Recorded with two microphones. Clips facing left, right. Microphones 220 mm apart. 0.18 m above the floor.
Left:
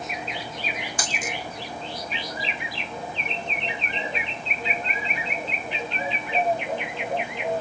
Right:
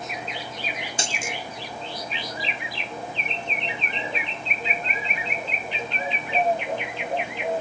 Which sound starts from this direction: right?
A dropped coin, at 1.0 s.